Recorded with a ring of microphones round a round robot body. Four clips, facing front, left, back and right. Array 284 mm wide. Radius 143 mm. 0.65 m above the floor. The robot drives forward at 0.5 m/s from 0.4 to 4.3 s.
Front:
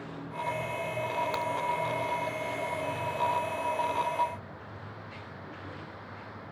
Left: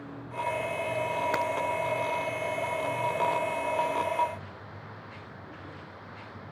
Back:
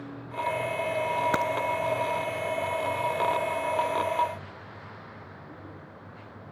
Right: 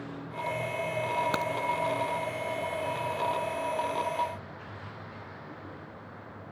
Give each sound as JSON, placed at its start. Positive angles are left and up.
{"t": 1.3, "sound": "a crack", "azimuth_deg": -165}